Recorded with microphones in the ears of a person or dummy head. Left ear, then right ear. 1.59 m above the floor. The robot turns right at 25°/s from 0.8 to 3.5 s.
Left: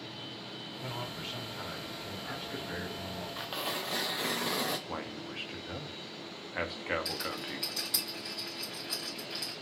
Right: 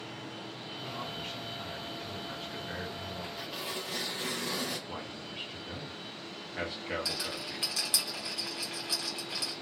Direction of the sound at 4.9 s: 25° left (ahead or behind).